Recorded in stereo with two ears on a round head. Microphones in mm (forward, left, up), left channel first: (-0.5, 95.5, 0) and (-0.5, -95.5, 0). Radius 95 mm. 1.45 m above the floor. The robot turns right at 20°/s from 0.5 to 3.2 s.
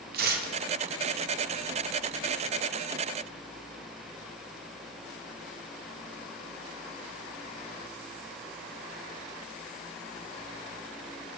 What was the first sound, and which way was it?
Tearing paper, 45° right (ahead or behind).